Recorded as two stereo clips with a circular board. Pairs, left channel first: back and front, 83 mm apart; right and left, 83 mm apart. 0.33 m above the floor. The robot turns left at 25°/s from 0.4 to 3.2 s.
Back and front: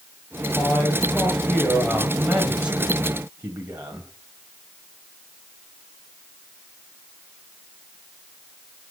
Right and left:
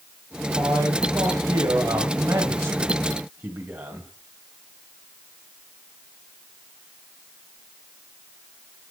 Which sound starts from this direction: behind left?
A man speaking, at 0.6 s.